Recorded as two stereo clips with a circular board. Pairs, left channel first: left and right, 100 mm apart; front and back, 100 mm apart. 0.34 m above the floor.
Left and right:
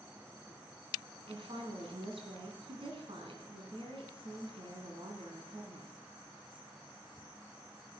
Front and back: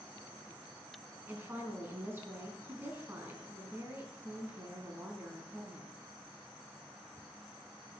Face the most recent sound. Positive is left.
turn(degrees=-110)